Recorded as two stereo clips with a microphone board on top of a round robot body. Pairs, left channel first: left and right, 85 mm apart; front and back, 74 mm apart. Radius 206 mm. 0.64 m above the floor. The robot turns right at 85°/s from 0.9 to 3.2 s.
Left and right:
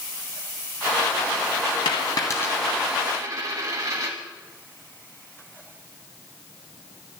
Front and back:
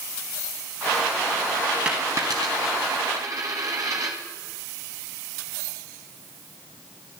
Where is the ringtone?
I don't hear a ringtone.